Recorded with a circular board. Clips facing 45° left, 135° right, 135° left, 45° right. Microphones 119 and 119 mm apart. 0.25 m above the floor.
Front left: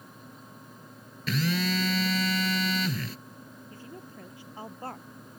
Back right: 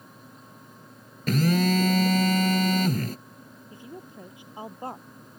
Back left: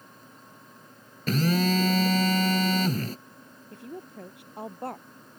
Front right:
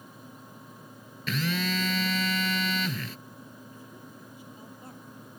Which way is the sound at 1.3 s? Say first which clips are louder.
Back right 6 dB, back left 6 dB; 175° right.